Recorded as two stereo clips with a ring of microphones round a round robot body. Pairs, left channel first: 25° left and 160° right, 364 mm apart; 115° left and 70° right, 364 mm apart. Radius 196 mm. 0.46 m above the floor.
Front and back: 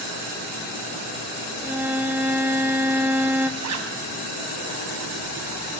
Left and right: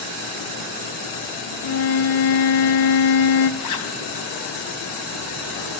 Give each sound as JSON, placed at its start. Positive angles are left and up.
{"t": 1.6, "sound": "a violin", "azimuth_deg": 120, "distance_m": 1.3}
{"t": 3.6, "sound": "a zipper", "azimuth_deg": 155, "distance_m": 2.5}